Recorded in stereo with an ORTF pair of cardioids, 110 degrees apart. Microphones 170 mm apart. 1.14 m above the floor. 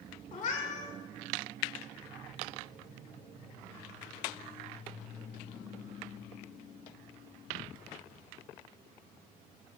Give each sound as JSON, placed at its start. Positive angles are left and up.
{"t": 0.3, "sound": "a cat meowing", "azimuth_deg": 50, "distance_m": 1.9}